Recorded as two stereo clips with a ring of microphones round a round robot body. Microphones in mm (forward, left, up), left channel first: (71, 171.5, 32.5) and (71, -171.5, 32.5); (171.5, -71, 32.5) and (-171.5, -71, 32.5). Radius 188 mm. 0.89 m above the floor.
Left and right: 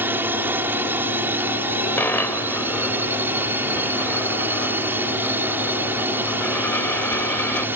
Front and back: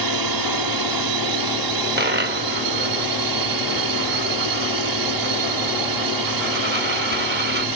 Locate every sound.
0.0 s a drone: 175° right
2.0 s a dropped coin: 170° left